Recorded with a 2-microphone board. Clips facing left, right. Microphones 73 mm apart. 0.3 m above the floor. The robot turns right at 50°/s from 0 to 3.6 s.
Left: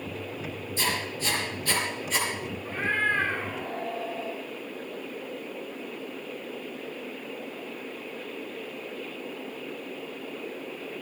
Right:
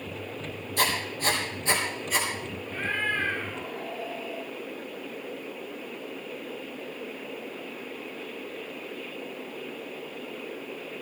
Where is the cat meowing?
40° left, 8.5 m; by 4.5 s 85° left, 8.5 m.